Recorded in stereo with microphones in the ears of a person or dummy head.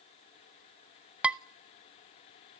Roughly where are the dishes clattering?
Centre.